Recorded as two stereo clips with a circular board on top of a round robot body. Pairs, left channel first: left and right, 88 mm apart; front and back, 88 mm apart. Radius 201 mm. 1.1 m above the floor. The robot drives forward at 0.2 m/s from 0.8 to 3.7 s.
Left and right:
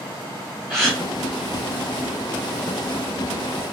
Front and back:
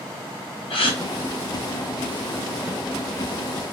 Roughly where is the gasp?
Ahead.